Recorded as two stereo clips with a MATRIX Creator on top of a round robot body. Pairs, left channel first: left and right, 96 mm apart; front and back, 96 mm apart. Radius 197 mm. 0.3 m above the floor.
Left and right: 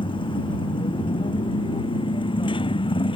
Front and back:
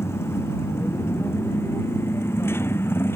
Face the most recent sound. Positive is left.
turn(degrees=65)